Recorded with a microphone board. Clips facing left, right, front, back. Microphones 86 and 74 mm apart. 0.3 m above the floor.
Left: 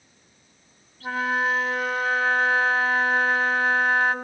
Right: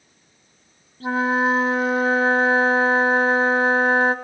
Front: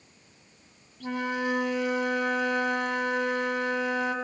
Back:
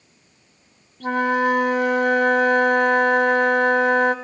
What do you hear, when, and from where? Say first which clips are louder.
1.0 s a flute: right 5 dB, back 10 dB; 145° right, 1.0 m